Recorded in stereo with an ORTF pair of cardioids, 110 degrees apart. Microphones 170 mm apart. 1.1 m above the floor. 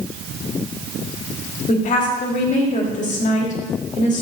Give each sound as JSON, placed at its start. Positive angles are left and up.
{"t": 1.7, "sound": "a woman speaking", "azimuth_deg": 50, "distance_m": 2.5}